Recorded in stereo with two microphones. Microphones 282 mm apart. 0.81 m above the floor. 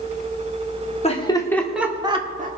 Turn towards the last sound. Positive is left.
turn(degrees=-30)  # may be behind; listen again after turning